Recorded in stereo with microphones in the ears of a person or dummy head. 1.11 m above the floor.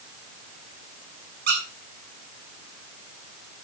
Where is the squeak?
60° right (ahead or behind), 3 m.